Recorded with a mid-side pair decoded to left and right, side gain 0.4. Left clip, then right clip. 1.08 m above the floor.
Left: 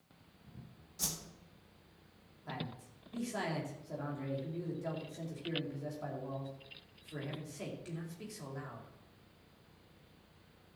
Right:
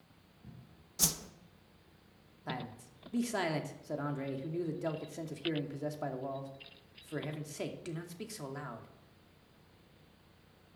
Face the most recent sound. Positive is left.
turn(degrees=-60)